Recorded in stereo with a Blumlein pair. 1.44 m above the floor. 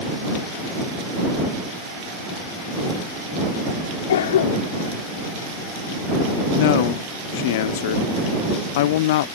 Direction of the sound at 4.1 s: 60° left.